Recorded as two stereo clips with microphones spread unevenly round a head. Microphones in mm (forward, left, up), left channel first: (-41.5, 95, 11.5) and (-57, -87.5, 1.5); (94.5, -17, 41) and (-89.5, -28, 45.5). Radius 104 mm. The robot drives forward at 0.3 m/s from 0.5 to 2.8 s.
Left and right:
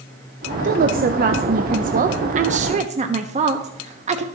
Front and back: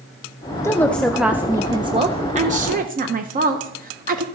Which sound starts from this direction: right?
A woman speaking, at 0.6 s.